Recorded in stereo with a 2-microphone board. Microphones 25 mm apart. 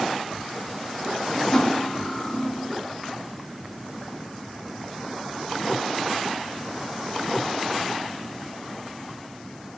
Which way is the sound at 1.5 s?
25° left (ahead or behind).